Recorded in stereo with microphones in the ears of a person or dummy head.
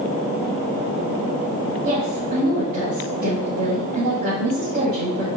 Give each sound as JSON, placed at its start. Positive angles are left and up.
{"t": 1.8, "sound": "a woman speaking", "side_deg": -45, "distance_m": 2.5}